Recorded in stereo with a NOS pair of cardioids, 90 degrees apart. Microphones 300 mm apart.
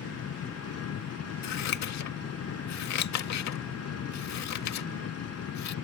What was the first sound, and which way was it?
An engine running, 55° left.